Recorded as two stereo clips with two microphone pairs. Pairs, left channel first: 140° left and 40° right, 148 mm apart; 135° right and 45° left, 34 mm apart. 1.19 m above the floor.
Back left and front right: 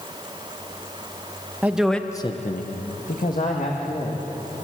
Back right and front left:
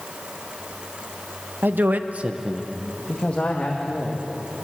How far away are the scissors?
I don't hear scissors.